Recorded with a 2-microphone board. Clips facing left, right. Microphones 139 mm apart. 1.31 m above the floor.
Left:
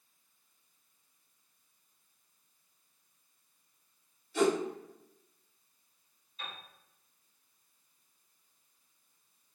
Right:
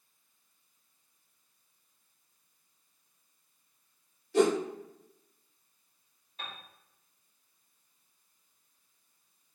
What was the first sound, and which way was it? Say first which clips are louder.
A whoosh: right 3 dB; 85° right.